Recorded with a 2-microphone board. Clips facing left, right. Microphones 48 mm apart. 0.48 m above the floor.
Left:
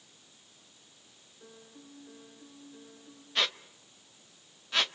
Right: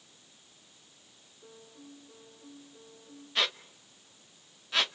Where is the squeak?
Centre (ahead or behind), 0.5 m.